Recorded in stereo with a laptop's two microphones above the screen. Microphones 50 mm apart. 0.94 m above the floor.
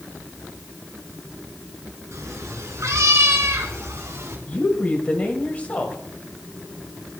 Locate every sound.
2.1 s a cat meowing: 85° right, 4.5 m; by 4.4 s 75° right (ahead or behind), 3 m
4.5 s a woman speaking: 30° left (ahead or behind), 4.5 m